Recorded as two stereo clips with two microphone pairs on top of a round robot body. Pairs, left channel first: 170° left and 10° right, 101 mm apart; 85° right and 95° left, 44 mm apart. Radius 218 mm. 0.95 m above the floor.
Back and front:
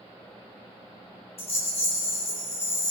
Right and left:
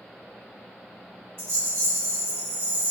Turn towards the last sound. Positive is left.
turn(degrees=140)